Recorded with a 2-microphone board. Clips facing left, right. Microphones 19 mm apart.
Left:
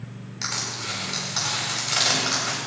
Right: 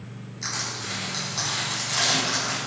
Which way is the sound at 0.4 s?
50° left (ahead or behind).